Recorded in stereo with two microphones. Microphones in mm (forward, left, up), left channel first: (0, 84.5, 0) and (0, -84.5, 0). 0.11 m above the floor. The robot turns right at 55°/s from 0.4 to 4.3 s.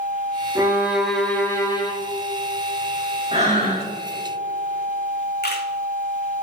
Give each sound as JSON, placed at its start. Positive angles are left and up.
{"t": 0.6, "sound": "a violin", "azimuth_deg": -30, "distance_m": 1.1}
{"t": 3.3, "sound": "breathing", "azimuth_deg": -145, "distance_m": 2.0}
{"t": 5.4, "sound": "a camera shutter", "side_deg": 75, "distance_m": 1.3}